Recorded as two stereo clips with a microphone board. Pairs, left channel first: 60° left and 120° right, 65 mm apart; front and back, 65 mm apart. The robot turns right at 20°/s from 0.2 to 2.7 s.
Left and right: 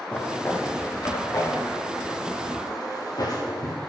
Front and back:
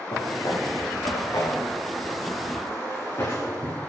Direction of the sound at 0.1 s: 5° right.